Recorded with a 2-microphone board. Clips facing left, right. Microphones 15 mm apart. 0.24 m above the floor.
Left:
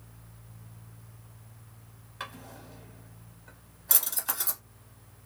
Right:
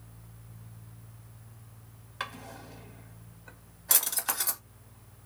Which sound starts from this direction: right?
A drawer, at 2.2 s.